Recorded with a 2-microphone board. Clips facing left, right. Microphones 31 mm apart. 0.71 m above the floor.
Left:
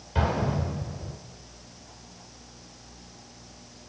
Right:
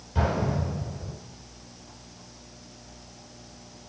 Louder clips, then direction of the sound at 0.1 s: Even; 30° left (ahead or behind).